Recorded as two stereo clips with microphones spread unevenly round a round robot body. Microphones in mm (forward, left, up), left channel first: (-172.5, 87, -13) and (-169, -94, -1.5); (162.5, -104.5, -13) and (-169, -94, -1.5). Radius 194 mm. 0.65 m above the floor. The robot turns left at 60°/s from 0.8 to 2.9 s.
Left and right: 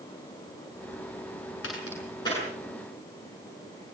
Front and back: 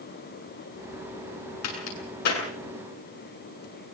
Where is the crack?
50° left, 7.5 m; by 2.4 s straight ahead, 7.5 m.